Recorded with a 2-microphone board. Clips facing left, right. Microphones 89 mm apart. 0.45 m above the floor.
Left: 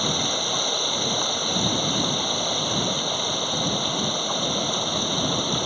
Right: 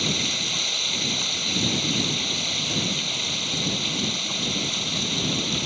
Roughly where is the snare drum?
No snare drum in this recording.